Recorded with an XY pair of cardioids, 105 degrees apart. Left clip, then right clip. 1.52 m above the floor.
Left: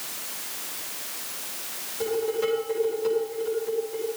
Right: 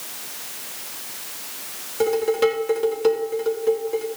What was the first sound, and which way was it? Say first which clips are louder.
Dishes clattering: right 7 dB; 70° right.